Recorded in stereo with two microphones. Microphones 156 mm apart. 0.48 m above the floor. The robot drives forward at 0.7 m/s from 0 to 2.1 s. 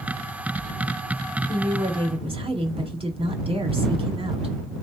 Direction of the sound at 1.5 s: 35° right (ahead or behind).